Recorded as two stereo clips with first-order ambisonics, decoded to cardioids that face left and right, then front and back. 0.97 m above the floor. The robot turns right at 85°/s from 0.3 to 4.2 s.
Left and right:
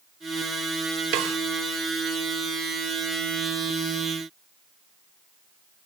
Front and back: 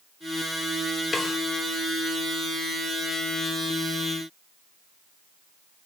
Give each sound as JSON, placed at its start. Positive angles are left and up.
{"t": 1.1, "sound": "a snare drum", "azimuth_deg": -75, "distance_m": 1.9}